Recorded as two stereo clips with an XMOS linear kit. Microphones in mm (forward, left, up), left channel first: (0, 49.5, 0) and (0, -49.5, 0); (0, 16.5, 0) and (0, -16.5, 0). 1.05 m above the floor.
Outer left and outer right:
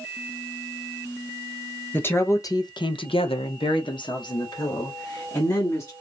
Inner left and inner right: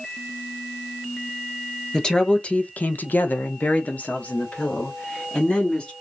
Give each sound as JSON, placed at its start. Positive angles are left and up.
{"t": 1.9, "sound": "a woman speaking", "side_deg": 20, "distance_m": 0.9}